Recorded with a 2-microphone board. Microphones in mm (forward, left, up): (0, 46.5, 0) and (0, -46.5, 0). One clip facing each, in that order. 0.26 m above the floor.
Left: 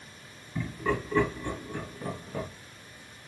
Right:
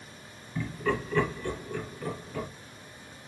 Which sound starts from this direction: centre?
Laughter, at 0.6 s.